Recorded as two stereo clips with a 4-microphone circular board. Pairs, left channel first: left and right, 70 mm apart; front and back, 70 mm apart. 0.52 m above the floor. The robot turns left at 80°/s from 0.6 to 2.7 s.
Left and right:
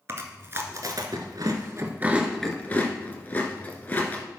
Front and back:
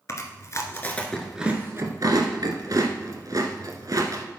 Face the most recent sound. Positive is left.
turn(degrees=155)